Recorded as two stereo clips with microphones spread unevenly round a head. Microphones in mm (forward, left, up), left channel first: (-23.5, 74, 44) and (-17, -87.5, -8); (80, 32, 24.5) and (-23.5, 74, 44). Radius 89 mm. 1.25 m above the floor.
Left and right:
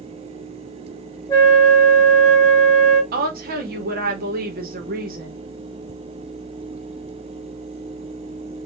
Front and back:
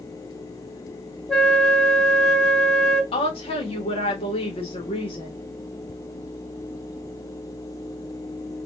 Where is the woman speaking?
65° right, 1.5 m.